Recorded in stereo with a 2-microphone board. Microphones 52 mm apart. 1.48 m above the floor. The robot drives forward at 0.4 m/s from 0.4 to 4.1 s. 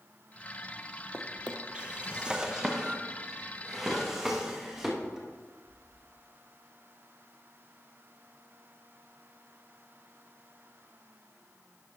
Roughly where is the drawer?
Right.